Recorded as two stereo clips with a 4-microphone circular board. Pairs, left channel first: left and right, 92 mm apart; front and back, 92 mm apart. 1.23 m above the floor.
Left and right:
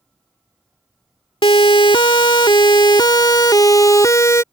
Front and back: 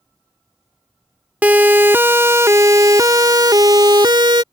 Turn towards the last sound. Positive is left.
turn(degrees=150)